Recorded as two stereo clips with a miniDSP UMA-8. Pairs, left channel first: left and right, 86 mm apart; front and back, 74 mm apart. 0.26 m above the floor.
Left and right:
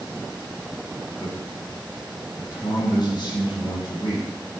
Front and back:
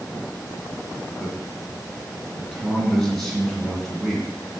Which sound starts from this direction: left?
A man speaking, at 1.2 s.